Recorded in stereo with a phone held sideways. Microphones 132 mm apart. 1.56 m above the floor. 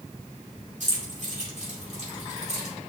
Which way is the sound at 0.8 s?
65° right (ahead or behind).